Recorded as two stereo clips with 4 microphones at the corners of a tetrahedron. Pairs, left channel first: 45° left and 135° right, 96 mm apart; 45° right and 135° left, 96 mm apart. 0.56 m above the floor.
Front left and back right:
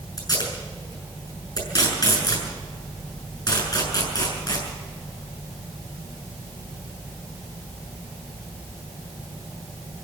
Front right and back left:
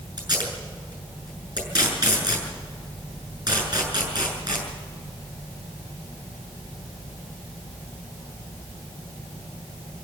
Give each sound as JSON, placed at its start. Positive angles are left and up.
{"t": 0.2, "sound": "tape being pulled", "azimuth_deg": 90, "distance_m": 7.0}